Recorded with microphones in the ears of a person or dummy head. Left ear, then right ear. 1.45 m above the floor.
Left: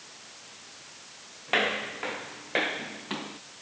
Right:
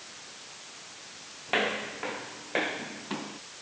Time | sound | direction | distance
1.5 | footsteps | 15° left (ahead or behind) | ?